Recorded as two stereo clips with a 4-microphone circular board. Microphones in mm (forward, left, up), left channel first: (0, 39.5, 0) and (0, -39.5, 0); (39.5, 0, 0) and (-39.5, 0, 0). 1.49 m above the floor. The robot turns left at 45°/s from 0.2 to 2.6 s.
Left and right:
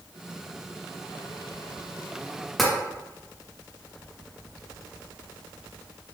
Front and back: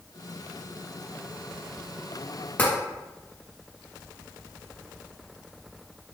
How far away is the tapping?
About 0.8 m.